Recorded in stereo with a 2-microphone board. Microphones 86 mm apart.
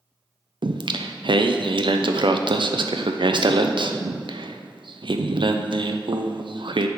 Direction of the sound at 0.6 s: 70° right (ahead or behind).